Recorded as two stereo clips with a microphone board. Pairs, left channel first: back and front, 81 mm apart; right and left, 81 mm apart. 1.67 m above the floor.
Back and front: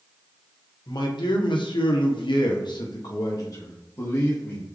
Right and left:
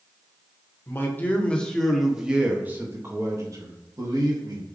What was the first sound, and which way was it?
A man speaking, 150° right.